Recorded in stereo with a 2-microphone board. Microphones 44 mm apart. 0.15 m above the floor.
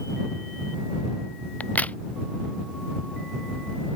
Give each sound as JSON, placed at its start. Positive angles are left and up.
{"t": 1.6, "sound": "a crack", "side_deg": 35}